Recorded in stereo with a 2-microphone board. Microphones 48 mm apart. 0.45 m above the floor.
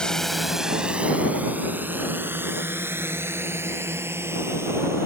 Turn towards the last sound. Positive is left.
turn(degrees=-60)  # may be behind; listen again after turning